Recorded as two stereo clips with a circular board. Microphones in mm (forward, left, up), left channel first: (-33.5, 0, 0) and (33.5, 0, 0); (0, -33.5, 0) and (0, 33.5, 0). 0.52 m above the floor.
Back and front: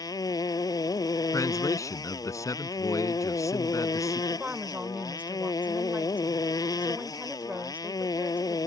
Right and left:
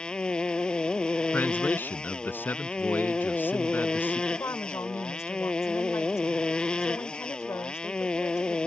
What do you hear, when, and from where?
0.0 s a motorcycle: 165° right
1.3 s a man speaking: 145° right
4.3 s a woman speaking: 60° right